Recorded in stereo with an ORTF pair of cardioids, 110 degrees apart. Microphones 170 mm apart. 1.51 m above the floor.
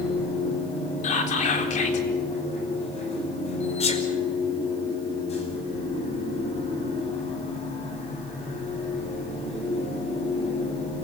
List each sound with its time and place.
0.0 s a machine running: 40° left, 7 m
1.0 s whispering: 50° left, 4 m
3.8 s a sneeze: 40° left, 5 m